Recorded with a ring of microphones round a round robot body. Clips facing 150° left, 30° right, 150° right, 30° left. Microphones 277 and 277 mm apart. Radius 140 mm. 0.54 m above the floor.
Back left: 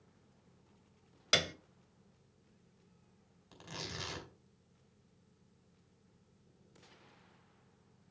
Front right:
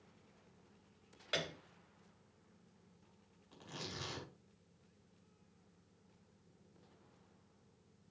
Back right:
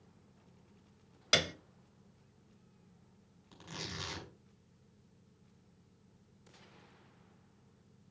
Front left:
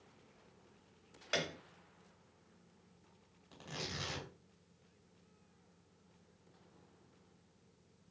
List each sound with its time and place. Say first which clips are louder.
1.3 s a piano: back left 5 dB, back right 4 dB; straight behind, 0.8 m
3.5 s tearing paper: back left 2 dB, front left 1 dB; 130° left, 5 m